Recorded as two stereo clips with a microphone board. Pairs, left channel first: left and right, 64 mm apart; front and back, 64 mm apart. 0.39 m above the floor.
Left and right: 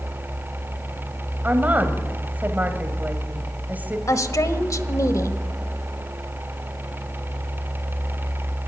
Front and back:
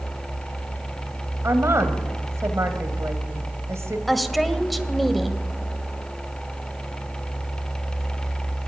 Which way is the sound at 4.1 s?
90° left.